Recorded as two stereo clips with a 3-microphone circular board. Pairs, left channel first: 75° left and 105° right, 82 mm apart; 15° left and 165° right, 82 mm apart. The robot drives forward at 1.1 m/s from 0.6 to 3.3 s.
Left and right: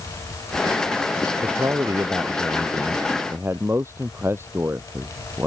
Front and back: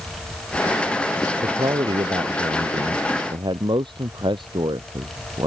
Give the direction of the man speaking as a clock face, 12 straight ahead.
5 o'clock.